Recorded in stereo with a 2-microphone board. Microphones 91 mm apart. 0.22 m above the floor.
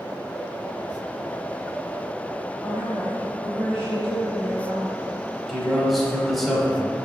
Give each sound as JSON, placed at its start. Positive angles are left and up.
{"t": 2.6, "sound": "a woman speaking", "side_deg": -10, "distance_m": 1.1}
{"t": 5.5, "sound": "a man speaking", "side_deg": 0, "distance_m": 1.2}